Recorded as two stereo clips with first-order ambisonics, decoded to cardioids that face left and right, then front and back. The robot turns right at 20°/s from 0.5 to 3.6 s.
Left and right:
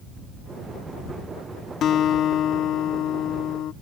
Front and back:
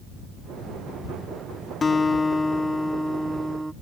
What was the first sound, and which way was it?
A guitar, 65° left.